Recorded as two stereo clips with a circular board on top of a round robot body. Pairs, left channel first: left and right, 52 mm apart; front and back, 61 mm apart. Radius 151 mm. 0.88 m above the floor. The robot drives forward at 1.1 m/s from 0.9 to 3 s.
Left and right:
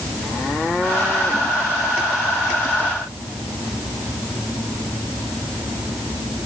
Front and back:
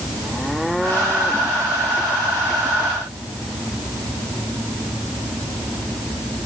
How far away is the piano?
I don't hear a piano.